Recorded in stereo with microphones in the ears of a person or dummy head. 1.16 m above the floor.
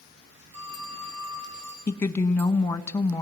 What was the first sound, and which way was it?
A phone ringing, 35° right (ahead or behind).